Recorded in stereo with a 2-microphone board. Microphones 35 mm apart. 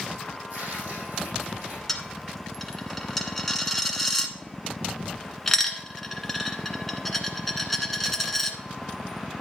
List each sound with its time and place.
0.5 s tearing paper: 70° right (ahead or behind), 5 m
1.9 s a dropped coin: 5° left (ahead or behind), 1.0 m